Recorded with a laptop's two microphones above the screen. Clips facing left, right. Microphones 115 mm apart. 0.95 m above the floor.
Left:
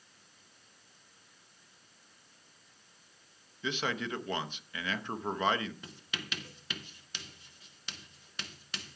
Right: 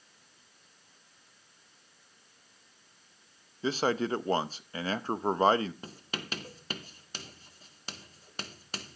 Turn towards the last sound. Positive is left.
turn(degrees=-40)  # may be behind; listen again after turning